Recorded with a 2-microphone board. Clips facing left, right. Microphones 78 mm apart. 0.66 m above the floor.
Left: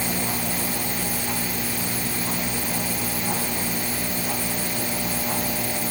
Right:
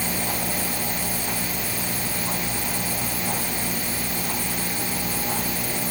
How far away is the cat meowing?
No cat meowing in this recording.